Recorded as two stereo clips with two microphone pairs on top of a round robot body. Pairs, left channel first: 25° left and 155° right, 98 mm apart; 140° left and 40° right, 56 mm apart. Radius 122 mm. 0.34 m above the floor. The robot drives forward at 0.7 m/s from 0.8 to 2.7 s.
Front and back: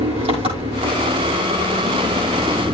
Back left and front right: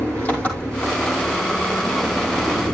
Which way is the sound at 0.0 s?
155° right.